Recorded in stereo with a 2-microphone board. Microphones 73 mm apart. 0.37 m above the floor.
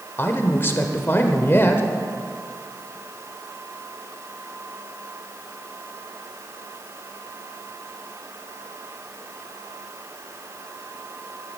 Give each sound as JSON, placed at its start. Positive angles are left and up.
{"t": 0.2, "sound": "a man speaking", "side_deg": 30, "distance_m": 1.0}